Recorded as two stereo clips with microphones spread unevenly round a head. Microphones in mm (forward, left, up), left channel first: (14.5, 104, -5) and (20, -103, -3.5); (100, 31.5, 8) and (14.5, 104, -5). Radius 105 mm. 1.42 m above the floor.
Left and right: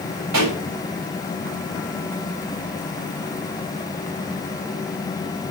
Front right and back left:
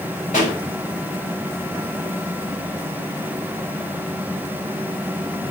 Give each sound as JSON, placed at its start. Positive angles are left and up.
{"t": 0.3, "sound": "a pop", "azimuth_deg": -90, "distance_m": 7.5}